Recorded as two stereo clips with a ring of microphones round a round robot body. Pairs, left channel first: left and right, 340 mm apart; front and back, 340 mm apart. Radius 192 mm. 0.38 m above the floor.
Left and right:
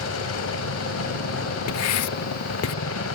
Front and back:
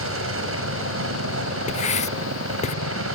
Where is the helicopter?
135° left.